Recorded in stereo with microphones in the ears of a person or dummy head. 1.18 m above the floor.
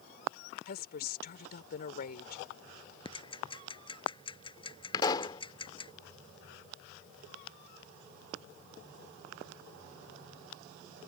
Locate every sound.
0.7 s a woman speaking: 55° left (ahead or behind)
3.0 s ticking: 25° left (ahead or behind)
4.9 s a pop: 25° left (ahead or behind)